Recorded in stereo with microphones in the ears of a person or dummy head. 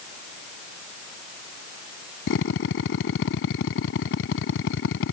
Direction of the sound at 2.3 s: 80° left.